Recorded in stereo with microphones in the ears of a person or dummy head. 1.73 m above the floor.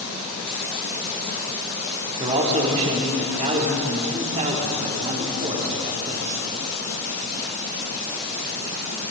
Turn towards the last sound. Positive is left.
turn(degrees=-35)  # may be behind; listen again after turning